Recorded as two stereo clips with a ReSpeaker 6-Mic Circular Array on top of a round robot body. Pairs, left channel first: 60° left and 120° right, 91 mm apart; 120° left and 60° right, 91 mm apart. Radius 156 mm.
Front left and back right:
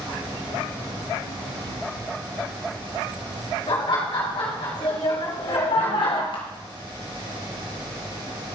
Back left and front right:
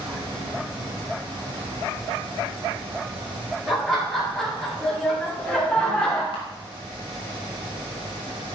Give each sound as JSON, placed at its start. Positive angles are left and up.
{"t": 3.7, "sound": "laughter", "azimuth_deg": 30, "distance_m": 5.5}
{"t": 6.3, "sound": "a camera shutter", "azimuth_deg": 90, "distance_m": 2.5}